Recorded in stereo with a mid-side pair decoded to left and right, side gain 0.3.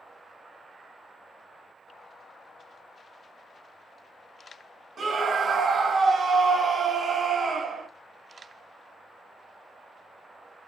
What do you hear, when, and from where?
5.0 s a scream: 60° right, 0.7 m